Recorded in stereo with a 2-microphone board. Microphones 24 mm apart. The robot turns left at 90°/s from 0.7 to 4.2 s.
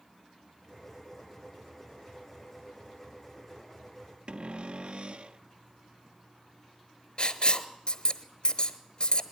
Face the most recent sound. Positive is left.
turn(degrees=45)  # may be behind; listen again after turning